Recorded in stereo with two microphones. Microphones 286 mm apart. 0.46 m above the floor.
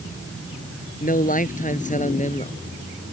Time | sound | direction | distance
1.0 | a man speaking | 30° left (ahead or behind) | ?